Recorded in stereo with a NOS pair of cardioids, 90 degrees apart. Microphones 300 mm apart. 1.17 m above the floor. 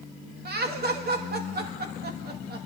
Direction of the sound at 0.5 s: 35° right.